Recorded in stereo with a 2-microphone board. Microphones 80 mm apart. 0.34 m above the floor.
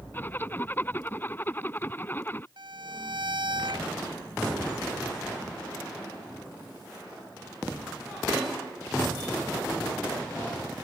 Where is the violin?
70° right (ahead or behind).